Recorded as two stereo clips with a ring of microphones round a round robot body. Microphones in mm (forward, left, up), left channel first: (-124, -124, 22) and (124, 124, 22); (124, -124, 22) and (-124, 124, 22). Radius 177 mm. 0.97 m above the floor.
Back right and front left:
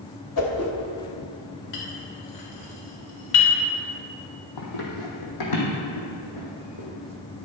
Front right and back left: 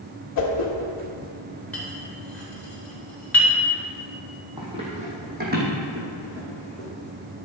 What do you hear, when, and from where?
0.4 s a whoosh: 90° right, 1.5 m
1.7 s a clink: 130° right, 3 m
4.6 s running footsteps: 150° right, 2 m; by 6.9 s 170° right, 4 m